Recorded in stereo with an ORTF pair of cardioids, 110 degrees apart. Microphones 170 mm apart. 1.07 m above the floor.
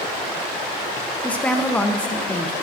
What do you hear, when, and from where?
1.2 s a woman speaking: 5° left, 0.6 m